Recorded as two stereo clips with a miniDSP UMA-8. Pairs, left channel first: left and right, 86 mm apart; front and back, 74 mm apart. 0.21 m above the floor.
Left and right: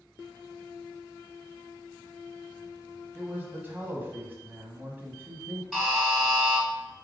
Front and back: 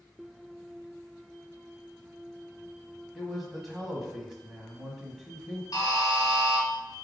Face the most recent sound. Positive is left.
turn(degrees=0)